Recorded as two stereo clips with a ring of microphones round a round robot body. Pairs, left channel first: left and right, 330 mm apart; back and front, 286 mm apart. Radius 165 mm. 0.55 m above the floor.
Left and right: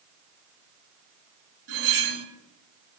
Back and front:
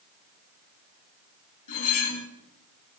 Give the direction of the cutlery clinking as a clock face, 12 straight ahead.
5 o'clock.